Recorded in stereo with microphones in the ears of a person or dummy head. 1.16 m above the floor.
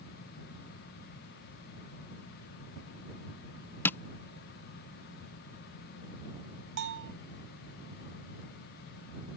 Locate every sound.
3.9 s tapping: 10° left (ahead or behind)
6.8 s a bell: 60° right (ahead or behind)